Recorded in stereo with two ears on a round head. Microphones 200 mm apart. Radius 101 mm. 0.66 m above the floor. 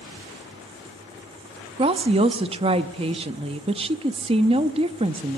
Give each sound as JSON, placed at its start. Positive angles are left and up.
{"t": 1.8, "sound": "a woman speaking", "side_deg": -25, "distance_m": 0.5}